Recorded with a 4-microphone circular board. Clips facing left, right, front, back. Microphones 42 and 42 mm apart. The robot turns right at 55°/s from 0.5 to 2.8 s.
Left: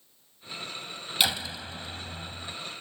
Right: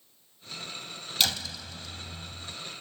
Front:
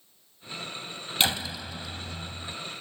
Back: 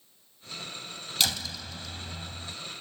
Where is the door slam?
30° left; by 2.5 s 105° left.